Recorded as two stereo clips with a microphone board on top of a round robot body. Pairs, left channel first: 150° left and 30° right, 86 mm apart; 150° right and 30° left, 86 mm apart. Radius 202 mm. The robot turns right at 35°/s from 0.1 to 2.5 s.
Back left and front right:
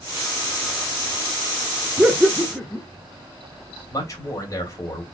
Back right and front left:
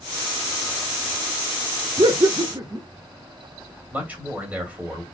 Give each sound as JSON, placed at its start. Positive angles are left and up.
{"t": 2.0, "sound": "laughter", "azimuth_deg": 40, "distance_m": 1.7}
{"t": 3.9, "sound": "a man speaking", "azimuth_deg": 100, "distance_m": 2.5}